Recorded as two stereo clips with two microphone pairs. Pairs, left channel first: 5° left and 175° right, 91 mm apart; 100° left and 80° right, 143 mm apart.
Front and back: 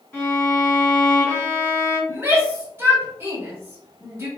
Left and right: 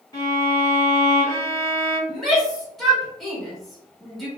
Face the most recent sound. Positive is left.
turn(degrees=-170)